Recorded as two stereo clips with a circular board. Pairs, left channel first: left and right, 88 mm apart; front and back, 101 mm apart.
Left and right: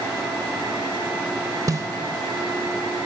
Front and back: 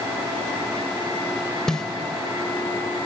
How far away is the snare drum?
About 0.6 m.